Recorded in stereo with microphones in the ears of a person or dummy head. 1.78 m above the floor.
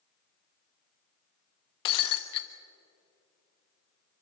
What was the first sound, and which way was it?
Breaking glass, 30° left (ahead or behind).